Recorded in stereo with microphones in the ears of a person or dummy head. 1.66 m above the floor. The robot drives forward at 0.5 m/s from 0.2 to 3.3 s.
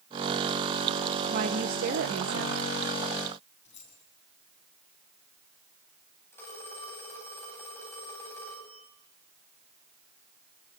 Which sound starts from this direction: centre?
A phone ringing, at 6.3 s.